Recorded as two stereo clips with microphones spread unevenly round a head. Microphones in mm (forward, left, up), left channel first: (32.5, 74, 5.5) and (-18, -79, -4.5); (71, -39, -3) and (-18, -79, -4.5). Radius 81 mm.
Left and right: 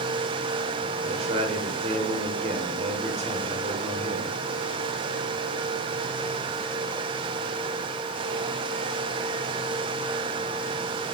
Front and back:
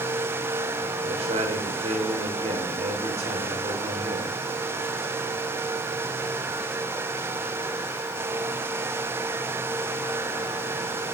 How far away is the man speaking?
About 4.5 m.